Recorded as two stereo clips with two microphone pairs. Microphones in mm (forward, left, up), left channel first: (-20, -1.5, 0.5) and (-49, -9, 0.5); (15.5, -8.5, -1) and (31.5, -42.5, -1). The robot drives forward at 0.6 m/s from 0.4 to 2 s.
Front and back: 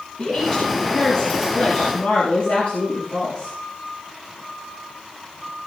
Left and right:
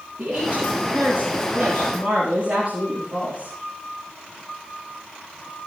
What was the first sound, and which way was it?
A woman speaking, 15° right.